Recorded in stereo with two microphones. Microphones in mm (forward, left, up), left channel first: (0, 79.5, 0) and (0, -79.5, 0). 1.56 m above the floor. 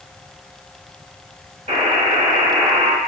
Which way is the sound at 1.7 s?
40° right (ahead or behind).